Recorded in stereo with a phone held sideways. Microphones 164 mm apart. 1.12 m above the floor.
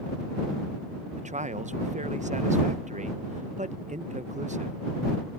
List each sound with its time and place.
1.2 s a man speaking: 45° right (ahead or behind)